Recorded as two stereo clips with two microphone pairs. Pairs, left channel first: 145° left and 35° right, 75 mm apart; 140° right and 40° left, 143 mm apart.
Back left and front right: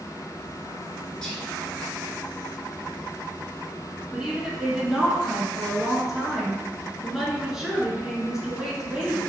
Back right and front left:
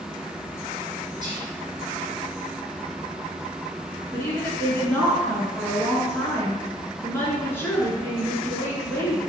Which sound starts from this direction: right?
A woman speaking, at 4.1 s.